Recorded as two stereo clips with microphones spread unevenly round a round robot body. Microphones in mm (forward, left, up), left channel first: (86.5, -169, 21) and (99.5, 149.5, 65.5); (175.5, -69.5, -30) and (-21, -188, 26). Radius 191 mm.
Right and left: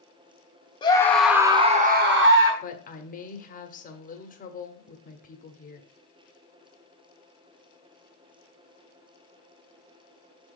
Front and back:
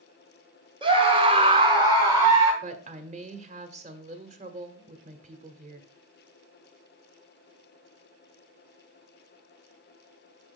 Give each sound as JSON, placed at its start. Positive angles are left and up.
{"t": 0.8, "sound": "a scream", "azimuth_deg": -80, "distance_m": 1.3}
{"t": 2.6, "sound": "a woman speaking", "azimuth_deg": -90, "distance_m": 1.4}